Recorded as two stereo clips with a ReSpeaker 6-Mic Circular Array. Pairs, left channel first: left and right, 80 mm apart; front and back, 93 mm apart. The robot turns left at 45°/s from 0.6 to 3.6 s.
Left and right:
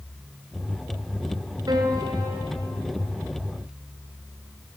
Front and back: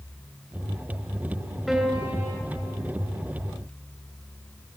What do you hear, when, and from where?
1.7 s a piano: 90° right, 1.9 m; by 2.3 s 120° right, 1.9 m